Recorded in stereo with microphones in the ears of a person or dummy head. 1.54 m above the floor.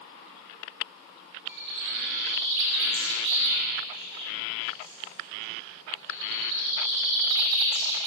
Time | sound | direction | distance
1.5 | a bird | 70° right (ahead or behind) | 5.5 m